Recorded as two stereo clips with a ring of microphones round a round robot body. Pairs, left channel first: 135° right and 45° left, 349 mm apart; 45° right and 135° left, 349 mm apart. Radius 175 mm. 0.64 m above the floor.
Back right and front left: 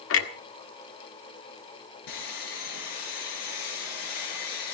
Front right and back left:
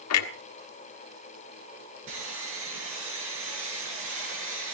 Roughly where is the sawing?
Behind.